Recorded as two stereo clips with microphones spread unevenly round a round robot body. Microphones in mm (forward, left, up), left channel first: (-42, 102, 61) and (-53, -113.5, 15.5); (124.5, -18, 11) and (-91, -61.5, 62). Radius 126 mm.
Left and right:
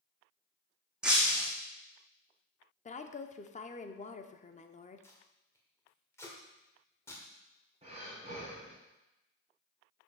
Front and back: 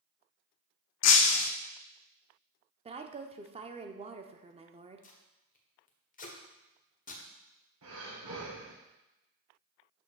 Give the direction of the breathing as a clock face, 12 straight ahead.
5 o'clock.